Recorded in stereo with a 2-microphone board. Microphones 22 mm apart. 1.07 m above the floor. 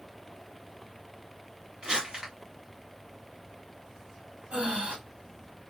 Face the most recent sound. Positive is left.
turn(degrees=-65)  # may be behind; listen again after turning